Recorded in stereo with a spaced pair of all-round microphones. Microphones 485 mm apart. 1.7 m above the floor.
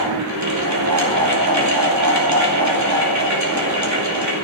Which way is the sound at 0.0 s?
35° right (ahead or behind).